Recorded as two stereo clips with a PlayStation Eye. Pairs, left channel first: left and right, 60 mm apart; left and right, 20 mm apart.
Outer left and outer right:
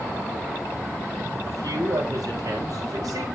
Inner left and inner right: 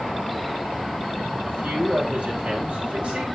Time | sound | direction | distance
1.4 | a man speaking | 75° right (ahead or behind) | 5.5 m